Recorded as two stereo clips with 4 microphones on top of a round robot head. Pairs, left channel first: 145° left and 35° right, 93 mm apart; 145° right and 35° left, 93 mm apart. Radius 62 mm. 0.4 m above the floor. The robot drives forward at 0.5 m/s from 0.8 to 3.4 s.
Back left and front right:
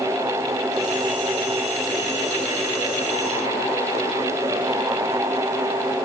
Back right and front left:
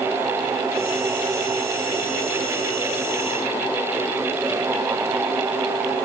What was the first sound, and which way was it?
Only background noise.